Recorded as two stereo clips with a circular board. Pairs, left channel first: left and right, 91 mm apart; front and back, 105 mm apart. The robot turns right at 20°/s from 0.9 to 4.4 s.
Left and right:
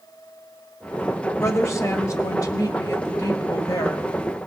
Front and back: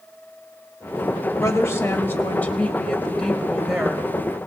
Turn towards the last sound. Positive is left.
turn(degrees=105)